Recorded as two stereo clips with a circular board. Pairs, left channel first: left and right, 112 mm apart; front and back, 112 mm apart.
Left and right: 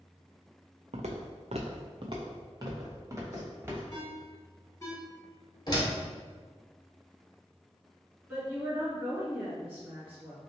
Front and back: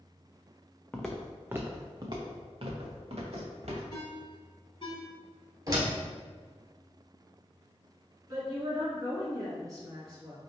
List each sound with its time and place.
0.9 s footsteps: 80° right, 0.6 m; by 3.8 s 155° right, 1.7 m
3.9 s a ringtone: 35° left, 1.7 m
5.7 s a door slam: 130° left, 1.5 m
8.3 s a woman speaking: 150° right, 1.9 m